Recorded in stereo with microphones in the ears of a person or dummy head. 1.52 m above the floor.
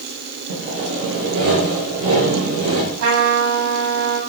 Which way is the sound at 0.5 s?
85° right.